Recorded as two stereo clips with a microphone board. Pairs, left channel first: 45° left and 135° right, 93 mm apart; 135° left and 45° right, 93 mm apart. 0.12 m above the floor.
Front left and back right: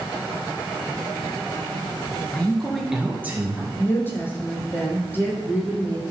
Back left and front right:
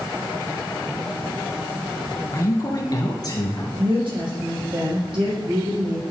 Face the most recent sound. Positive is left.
turn(degrees=-20)